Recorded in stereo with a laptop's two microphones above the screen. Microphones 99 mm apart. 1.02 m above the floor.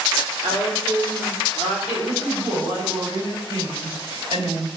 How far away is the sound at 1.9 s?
About 3.5 m.